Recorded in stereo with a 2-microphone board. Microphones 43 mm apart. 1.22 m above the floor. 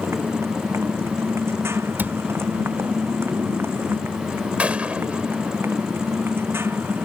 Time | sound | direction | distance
0.0 | a motorcycle | 75° right (ahead or behind) | ?
2.0 | a cupboard door | 45° right (ahead or behind) | ?
4.6 | a gunshot | 30° right (ahead or behind) | ?